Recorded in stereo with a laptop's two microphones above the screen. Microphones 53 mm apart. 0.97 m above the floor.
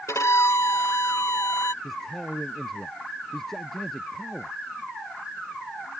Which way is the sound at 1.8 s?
5° left (ahead or behind).